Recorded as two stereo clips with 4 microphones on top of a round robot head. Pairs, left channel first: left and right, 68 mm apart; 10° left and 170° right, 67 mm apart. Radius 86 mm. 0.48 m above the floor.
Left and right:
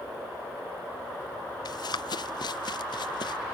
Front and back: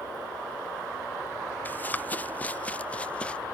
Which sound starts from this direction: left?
Running footsteps, at 1.6 s.